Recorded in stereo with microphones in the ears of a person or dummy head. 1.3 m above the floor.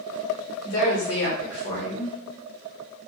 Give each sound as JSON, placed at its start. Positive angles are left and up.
{"t": 0.6, "sound": "a woman speaking", "side_deg": 55, "distance_m": 1.0}